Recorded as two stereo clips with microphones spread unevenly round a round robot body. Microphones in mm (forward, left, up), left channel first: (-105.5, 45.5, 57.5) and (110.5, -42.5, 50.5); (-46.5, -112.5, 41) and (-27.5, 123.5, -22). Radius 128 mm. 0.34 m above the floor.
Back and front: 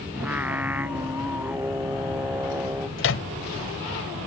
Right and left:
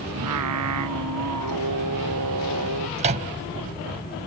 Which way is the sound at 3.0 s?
135° left.